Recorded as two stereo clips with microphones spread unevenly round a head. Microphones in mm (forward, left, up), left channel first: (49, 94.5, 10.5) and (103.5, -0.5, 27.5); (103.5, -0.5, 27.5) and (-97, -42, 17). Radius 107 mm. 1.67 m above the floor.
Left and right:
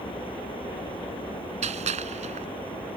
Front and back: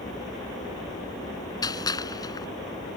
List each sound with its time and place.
0.0 s a vehicle: 85° left
1.6 s a gunshot: 60° right